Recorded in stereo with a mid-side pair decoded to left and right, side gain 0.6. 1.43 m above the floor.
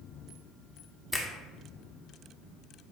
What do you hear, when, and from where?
1.1 s a finger snap: straight ahead, 0.8 m